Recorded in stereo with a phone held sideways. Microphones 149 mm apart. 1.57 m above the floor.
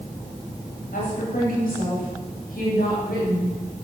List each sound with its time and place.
0.9 s a woman speaking: 70° left (ahead or behind), 9.5 m; by 3.5 s 85° left, 8 m